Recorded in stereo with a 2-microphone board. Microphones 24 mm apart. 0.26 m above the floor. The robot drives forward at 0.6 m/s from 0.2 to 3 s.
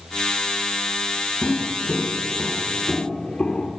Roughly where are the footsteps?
Left.